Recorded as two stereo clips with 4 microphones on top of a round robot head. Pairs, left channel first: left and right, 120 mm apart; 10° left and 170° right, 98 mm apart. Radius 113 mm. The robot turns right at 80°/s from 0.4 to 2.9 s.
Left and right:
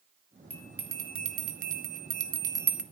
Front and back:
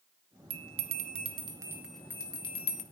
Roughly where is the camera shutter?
I don't hear a camera shutter.